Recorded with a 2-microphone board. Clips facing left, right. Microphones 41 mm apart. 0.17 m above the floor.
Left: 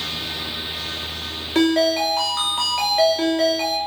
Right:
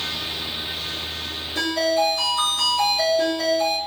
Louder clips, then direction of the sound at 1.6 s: Left 4 dB; 60° left (ahead or behind).